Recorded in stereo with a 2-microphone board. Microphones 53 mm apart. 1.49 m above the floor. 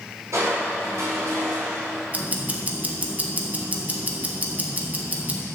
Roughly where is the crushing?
Right.